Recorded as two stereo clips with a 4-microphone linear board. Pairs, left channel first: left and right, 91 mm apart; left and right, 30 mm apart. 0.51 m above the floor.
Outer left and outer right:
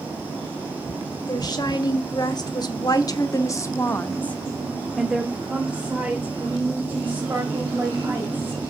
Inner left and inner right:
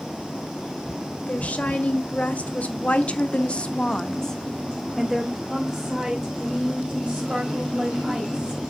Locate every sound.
1.3 s a woman speaking: 50° left (ahead or behind), 1.8 m; by 8.6 s 25° right (ahead or behind), 3 m